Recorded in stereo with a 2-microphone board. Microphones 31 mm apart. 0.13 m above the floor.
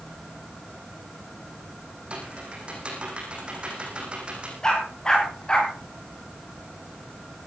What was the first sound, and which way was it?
Typing on a keyboard, 30° right (ahead or behind).